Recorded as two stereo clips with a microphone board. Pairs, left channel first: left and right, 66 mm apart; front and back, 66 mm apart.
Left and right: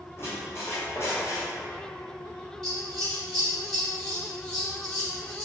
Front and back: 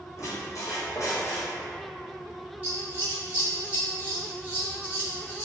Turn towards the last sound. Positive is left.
turn(degrees=165)